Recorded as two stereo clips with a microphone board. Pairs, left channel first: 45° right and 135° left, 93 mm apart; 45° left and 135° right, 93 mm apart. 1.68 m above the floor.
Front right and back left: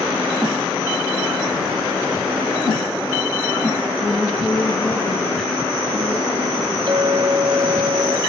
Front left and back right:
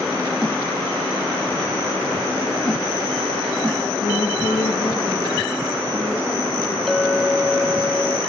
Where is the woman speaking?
35° left, 2 m; by 6.8 s 20° right, 4.5 m.